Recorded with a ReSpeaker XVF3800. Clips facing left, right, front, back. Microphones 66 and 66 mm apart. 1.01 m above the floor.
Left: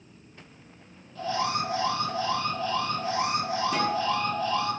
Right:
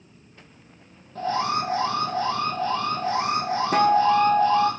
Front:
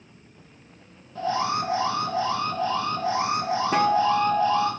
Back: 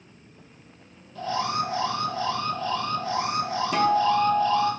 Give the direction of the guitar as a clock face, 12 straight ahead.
2 o'clock.